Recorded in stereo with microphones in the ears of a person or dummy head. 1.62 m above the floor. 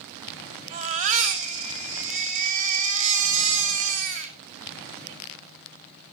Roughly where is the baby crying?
Right.